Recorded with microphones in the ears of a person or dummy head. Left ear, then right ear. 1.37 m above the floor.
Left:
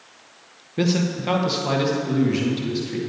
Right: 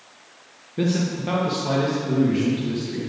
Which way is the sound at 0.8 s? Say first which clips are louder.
Left 2 dB; 20° left (ahead or behind).